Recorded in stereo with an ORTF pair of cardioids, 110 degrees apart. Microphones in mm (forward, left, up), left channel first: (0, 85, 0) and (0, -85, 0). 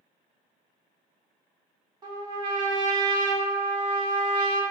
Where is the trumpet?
25° right, 0.7 m.